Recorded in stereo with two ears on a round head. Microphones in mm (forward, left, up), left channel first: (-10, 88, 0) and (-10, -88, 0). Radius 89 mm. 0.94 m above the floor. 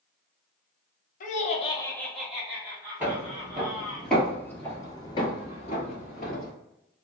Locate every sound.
1.2 s laughter: 40° left (ahead or behind), 0.6 m; by 4.0 s 30° right (ahead or behind), 1.6 m
3.0 s footsteps: 10° right (ahead or behind), 1.6 m; by 6.5 s 45° left (ahead or behind), 1.2 m